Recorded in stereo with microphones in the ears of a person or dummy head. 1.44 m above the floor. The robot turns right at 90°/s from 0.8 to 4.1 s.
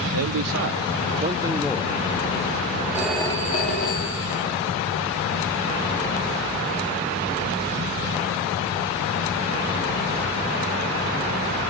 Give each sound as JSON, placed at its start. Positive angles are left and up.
{"t": 0.1, "sound": "a man speaking", "azimuth_deg": -75, "distance_m": 0.6}
{"t": 2.9, "sound": "a phone ringing", "azimuth_deg": -15, "distance_m": 2.5}